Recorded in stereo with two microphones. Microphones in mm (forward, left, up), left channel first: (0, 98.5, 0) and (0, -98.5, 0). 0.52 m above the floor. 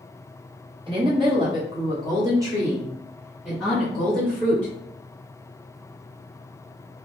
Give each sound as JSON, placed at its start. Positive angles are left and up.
{"t": 0.9, "sound": "a woman speaking", "side_deg": -25, "distance_m": 1.7}